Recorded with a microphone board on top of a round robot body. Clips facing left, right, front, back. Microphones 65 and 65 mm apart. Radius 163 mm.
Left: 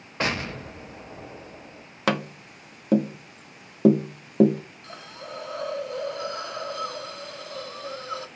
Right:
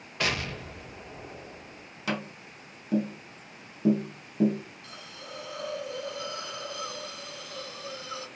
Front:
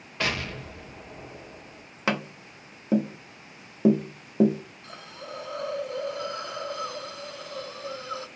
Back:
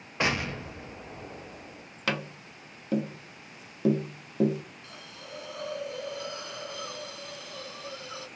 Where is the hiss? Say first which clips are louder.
Left 5 dB, front 5 dB; 45° left, 0.7 m.